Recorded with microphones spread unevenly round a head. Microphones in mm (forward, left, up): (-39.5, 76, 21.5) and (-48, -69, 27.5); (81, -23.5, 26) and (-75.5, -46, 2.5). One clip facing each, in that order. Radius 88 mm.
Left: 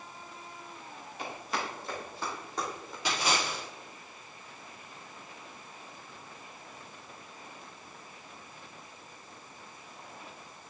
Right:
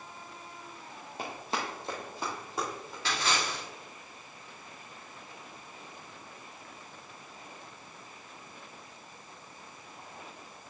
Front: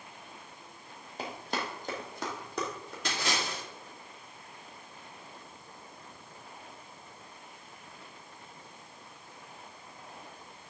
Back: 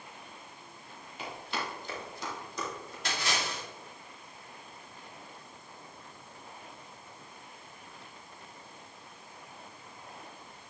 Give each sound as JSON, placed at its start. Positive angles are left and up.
{"t": 1.2, "sound": "running footsteps", "azimuth_deg": -35, "distance_m": 1.9}
{"t": 3.0, "sound": "a splash", "azimuth_deg": 10, "distance_m": 2.0}